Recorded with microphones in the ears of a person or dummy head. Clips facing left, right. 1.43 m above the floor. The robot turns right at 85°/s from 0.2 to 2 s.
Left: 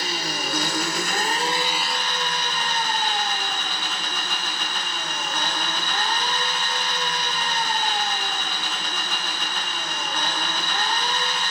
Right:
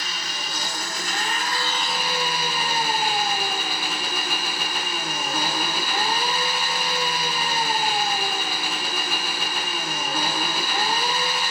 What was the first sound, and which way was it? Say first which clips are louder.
An engine running: left 6 dB; 35° left.